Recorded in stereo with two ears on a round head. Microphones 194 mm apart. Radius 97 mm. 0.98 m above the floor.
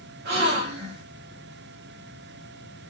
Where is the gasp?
50° right (ahead or behind), 1.1 m.